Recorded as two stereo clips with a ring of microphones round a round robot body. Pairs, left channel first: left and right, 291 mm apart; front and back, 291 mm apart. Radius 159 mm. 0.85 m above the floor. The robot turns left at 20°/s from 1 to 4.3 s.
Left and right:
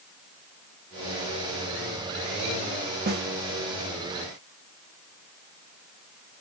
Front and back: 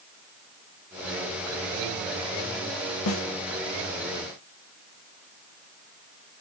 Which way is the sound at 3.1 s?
35° right.